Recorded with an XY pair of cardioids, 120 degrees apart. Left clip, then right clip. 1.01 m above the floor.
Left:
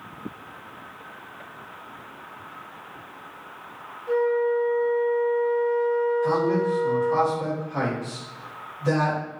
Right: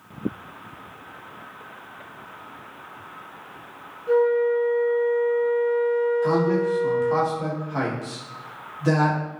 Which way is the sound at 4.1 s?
25° right.